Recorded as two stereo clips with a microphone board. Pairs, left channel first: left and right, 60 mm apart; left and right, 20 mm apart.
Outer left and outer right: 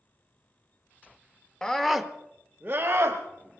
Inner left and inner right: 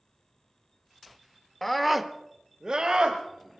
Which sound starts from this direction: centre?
A scream, at 1.6 s.